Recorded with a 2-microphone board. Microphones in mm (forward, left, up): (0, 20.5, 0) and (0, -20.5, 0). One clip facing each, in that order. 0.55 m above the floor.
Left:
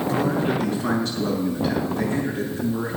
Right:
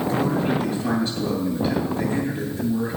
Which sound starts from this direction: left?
A man speaking, at 0.1 s.